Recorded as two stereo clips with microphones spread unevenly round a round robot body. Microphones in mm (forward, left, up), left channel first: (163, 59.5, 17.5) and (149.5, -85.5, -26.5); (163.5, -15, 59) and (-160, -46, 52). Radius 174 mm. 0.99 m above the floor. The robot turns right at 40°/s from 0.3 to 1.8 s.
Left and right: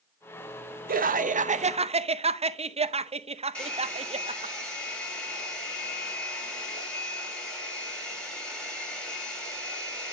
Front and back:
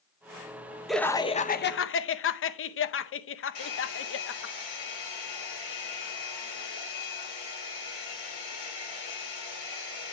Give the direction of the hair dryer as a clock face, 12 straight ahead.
12 o'clock.